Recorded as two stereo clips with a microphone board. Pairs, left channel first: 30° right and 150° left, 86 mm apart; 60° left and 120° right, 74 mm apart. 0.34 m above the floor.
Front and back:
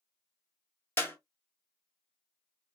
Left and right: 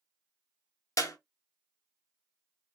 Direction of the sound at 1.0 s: 30° left.